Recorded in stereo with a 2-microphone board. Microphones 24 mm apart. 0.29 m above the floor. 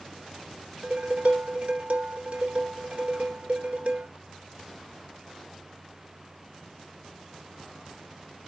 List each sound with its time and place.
0.8 s dishes clattering: 55° right (ahead or behind), 2.5 m